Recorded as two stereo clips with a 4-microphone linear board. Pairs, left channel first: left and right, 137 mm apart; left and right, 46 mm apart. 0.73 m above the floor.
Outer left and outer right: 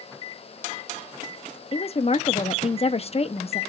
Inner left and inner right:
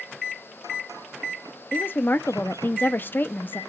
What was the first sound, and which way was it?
A woman speaking, 50° left (ahead or behind).